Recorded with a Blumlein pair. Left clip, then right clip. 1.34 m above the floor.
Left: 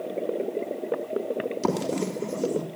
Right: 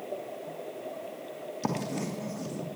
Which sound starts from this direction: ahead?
Writing, at 1.6 s.